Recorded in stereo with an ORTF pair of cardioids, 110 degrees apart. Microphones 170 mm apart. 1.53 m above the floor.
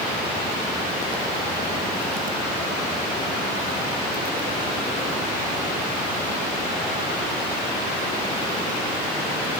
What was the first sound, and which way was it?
Only background noise.